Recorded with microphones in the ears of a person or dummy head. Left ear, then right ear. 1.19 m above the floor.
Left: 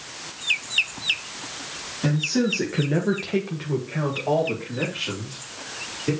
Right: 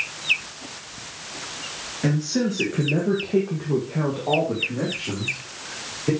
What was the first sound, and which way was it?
A man speaking, 5° right (ahead or behind).